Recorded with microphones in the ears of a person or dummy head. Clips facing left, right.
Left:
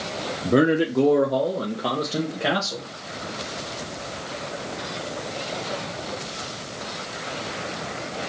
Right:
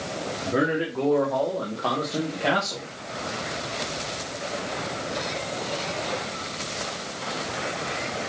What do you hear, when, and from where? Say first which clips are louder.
0.5 s a man speaking: left 6 dB; 50° left (ahead or behind), 0.7 m; by 2.9 s 10° left (ahead or behind), 1.3 m